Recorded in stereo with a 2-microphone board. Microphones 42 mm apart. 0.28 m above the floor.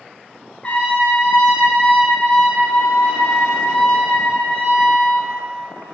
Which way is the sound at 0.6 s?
30° left (ahead or behind).